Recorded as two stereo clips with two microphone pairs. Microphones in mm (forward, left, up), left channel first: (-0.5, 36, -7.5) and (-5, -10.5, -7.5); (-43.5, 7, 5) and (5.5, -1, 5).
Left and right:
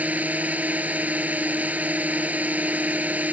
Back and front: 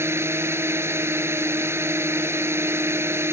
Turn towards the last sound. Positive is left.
turn(degrees=-40)